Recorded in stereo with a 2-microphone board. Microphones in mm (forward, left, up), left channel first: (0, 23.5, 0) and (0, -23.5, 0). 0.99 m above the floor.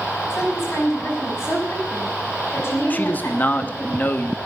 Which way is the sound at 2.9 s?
35° left (ahead or behind).